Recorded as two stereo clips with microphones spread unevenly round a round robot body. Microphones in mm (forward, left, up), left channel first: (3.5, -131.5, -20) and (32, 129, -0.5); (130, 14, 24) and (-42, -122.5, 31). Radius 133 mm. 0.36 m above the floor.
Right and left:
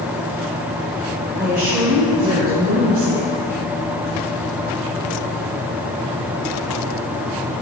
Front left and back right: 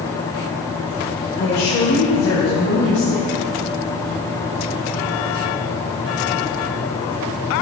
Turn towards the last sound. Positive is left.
turn(degrees=40)